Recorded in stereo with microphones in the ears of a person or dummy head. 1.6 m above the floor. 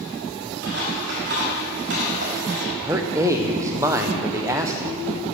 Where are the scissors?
50° right (ahead or behind), 1.5 m.